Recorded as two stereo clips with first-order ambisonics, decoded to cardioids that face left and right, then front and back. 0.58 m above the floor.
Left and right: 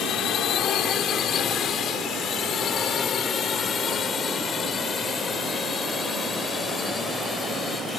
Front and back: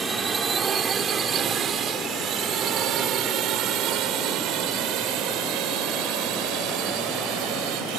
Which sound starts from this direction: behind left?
A drone, at 0.0 s.